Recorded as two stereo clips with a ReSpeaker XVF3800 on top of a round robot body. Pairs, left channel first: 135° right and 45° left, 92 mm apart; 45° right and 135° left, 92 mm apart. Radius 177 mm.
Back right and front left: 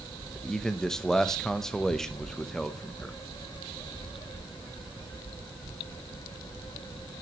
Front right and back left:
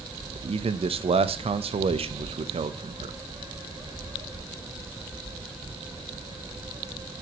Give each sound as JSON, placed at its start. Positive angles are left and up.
{"t": 0.3, "sound": "a man speaking", "azimuth_deg": 140, "distance_m": 0.8}